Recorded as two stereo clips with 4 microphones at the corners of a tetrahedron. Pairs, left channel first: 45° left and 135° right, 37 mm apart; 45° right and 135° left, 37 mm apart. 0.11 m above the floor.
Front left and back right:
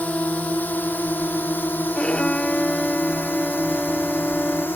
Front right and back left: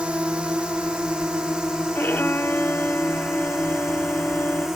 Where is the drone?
80° left; by 4.8 s 60° left.